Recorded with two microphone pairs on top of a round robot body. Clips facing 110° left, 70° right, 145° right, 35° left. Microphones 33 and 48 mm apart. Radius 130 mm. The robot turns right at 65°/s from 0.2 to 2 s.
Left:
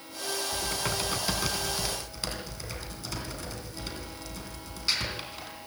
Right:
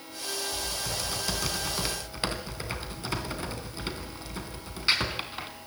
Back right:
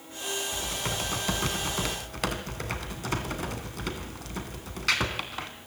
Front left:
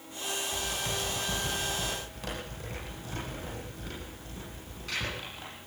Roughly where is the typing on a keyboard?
Behind left.